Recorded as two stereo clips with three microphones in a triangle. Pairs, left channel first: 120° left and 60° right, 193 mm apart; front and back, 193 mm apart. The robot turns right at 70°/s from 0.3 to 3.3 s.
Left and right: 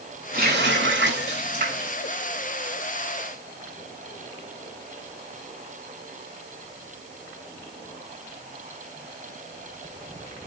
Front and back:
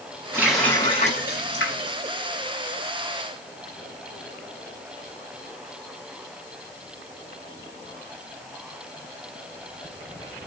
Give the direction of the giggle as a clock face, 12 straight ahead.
No giggle in this recording.